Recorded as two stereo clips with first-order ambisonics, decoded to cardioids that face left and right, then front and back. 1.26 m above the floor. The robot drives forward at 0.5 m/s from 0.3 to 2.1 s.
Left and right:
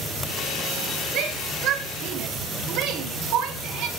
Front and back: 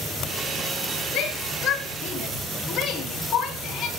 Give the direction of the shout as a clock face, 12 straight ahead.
2 o'clock.